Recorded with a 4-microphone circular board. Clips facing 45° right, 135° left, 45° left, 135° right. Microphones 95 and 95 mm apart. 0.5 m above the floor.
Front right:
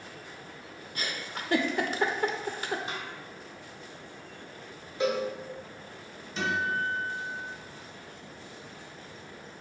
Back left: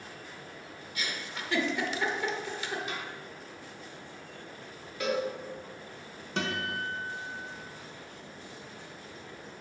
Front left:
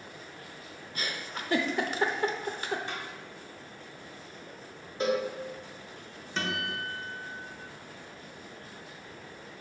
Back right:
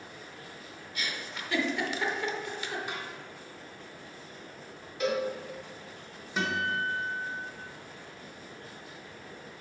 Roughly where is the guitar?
Behind left.